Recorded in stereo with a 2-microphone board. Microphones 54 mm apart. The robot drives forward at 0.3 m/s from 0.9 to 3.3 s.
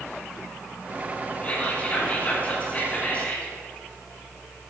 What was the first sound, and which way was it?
Whispering, 30° left (ahead or behind).